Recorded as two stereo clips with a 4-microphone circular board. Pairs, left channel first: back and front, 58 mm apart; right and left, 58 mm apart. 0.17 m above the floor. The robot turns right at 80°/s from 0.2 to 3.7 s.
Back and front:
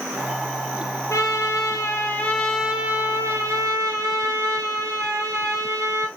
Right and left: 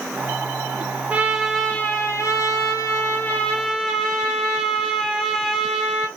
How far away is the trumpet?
About 0.8 m.